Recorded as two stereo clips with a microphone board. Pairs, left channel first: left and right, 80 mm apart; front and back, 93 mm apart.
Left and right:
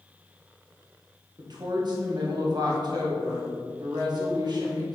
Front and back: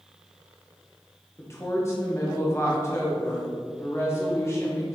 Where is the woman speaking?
60° right, 1.7 m.